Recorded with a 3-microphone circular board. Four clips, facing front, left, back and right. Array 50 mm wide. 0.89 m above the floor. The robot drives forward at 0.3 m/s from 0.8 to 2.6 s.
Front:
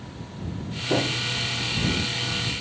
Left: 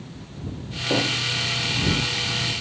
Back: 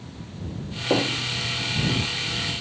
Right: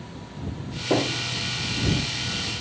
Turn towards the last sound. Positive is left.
turn(degrees=-170)